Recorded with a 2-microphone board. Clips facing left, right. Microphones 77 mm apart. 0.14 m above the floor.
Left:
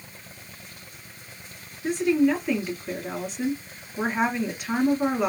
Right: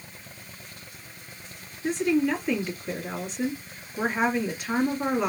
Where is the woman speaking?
Centre (ahead or behind), 1.5 m.